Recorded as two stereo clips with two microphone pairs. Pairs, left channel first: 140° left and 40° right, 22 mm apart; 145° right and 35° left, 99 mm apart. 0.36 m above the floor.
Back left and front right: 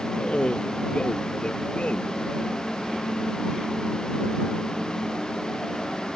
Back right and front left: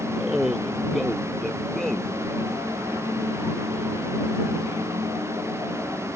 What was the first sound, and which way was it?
A man speaking, 120° left.